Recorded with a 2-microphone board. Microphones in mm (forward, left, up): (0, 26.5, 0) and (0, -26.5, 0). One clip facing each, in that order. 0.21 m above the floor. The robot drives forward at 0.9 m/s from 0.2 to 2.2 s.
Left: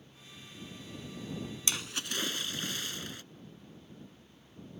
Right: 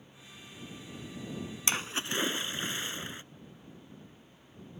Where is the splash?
35° right (ahead or behind); by 3.2 s 25° right (ahead or behind).